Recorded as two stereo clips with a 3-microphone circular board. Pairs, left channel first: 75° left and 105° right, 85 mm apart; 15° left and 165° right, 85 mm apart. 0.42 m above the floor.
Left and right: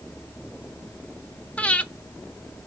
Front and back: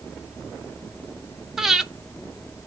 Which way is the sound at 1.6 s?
120° left.